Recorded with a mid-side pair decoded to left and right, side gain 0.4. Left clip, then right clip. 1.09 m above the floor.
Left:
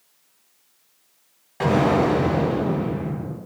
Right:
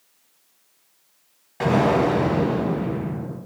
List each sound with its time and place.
1.6 s an explosion: straight ahead, 1.3 m